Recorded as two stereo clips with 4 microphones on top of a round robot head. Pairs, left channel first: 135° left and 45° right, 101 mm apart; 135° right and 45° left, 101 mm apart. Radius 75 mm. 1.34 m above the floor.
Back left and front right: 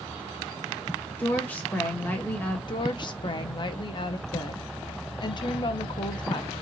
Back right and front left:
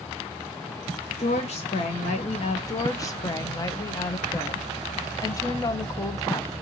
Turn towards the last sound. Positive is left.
turn(degrees=170)